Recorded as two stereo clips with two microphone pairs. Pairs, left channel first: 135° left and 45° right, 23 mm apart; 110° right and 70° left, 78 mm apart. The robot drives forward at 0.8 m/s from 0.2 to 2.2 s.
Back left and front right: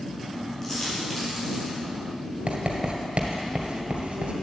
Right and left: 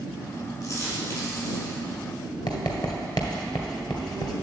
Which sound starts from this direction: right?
Writing, at 2.5 s.